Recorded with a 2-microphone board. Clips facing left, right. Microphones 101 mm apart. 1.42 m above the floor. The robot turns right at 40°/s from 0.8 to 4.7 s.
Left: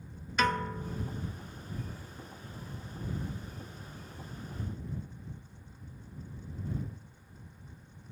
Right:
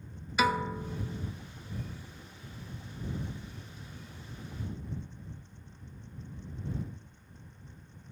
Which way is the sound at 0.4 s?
5° right (ahead or behind).